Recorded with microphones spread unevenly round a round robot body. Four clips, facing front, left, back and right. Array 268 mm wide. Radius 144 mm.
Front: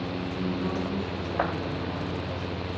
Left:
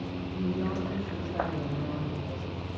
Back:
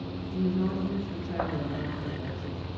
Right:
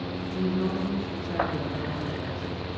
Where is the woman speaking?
90° right, 8.5 m.